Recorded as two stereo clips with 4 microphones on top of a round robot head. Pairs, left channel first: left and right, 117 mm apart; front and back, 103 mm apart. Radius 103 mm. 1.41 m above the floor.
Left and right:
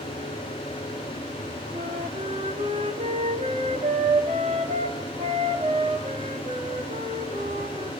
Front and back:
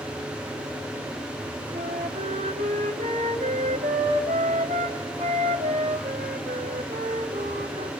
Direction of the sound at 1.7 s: 145° right.